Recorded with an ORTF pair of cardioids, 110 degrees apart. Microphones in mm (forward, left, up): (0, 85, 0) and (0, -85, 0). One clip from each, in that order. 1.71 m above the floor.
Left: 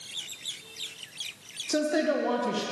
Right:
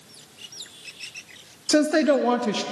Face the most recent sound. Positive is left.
turn(degrees=-35)